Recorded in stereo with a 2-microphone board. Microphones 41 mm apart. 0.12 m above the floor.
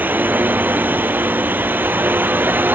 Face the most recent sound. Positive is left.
turn(degrees=-50)  # may be behind; listen again after turning